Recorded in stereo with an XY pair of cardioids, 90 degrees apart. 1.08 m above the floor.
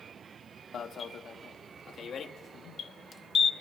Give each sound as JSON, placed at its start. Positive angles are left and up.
{"t": 0.7, "sound": "an alarm", "azimuth_deg": 60, "distance_m": 0.9}